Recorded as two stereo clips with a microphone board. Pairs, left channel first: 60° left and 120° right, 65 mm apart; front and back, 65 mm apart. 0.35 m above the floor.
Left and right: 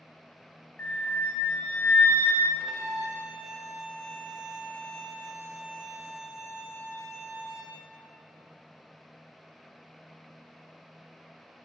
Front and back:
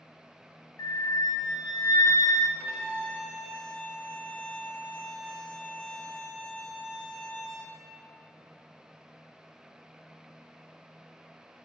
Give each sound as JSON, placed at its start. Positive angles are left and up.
{"t": 0.8, "sound": "a flute", "azimuth_deg": 10, "distance_m": 0.6}
{"t": 2.6, "sound": "a violin", "azimuth_deg": -55, "distance_m": 1.5}